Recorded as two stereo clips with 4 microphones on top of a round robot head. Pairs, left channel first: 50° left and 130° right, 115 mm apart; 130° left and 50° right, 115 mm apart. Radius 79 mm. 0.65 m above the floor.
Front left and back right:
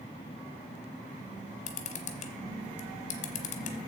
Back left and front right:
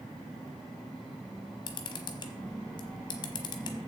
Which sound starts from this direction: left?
A camera shutter, at 1.7 s.